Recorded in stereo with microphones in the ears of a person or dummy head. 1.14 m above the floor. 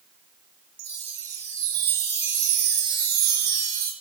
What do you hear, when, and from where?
0.8 s a chime: 55° right (ahead or behind), 2.5 m